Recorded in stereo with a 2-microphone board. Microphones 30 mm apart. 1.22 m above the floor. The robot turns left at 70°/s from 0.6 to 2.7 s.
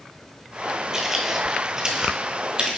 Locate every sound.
0.9 s footsteps: 20° right (ahead or behind), 1.4 m; by 2.8 s 30° right (ahead or behind), 1.7 m